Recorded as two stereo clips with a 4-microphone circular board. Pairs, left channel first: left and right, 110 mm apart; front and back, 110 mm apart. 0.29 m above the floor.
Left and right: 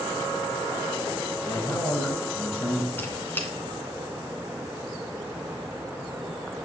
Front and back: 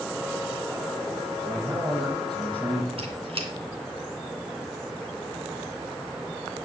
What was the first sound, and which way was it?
A man speaking, 145° left.